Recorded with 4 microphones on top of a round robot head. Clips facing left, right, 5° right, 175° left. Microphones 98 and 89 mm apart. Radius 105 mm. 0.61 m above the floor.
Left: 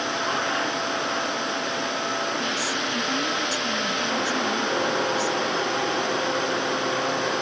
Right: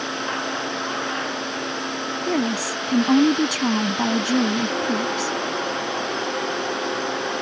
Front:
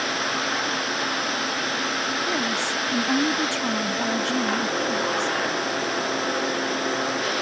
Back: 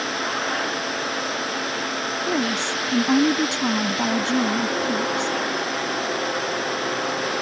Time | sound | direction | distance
2.3 | a woman speaking | 110° right | ?